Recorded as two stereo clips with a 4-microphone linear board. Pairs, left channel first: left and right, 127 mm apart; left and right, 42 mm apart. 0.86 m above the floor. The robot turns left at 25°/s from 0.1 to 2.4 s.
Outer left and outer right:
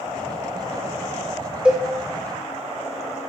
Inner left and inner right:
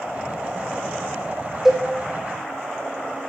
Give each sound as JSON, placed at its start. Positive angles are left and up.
{"t": 1.6, "sound": "a cowbell", "side_deg": -10, "distance_m": 1.4}